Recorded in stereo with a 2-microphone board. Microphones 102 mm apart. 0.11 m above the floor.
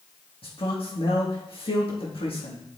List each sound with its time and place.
0.4 s a man speaking: 65° left (ahead or behind), 4.5 m